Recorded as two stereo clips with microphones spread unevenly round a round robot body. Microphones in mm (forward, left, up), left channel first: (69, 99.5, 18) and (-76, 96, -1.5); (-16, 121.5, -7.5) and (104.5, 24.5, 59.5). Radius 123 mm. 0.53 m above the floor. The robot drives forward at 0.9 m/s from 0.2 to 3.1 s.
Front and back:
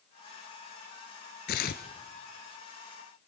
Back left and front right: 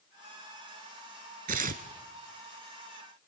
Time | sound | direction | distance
1.5 | tearing paper | 20° right | 1.4 m